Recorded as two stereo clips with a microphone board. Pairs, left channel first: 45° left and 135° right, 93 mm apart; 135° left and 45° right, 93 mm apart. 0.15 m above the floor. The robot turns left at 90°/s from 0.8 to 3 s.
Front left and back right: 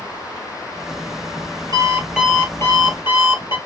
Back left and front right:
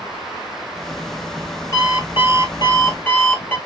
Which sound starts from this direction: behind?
An alarm clock, at 1.7 s.